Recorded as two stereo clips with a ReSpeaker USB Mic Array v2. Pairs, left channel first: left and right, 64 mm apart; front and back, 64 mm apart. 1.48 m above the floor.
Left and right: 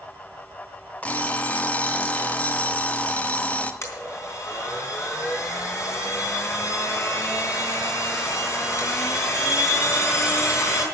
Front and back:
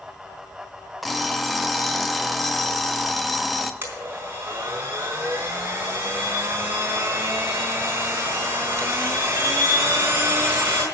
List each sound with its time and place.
1.0 s an alarm clock: 90° left, 0.9 m
3.8 s a blender: 125° left, 4 m